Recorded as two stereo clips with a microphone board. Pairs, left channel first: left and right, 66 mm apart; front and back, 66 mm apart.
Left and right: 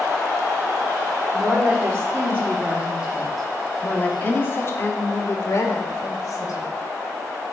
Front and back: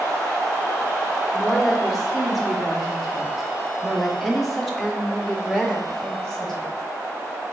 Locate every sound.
1.3 s a woman speaking: 90° right, 1.6 m; by 6.7 s 85° left, 2.5 m